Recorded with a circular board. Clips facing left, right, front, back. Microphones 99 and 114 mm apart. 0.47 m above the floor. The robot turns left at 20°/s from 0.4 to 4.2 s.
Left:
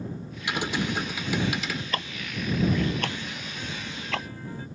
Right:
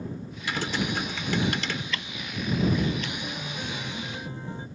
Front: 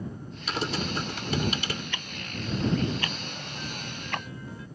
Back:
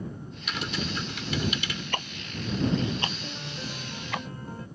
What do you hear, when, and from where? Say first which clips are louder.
0.5 s typing on a keyboard: left 1 dB, front 3 dB; 30° left; by 1.8 s straight ahead
1.9 s ticking: left 2 dB, back 3 dB; 135° left; by 4.2 s 90° left
3.2 s a piano: right 2 dB, back 1 dB; 130° right; by 4.7 s 150° right